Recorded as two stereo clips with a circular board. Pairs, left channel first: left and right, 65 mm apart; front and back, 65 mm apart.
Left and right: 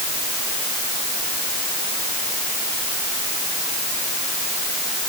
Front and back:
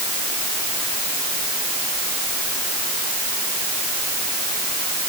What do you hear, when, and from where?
Only background noise.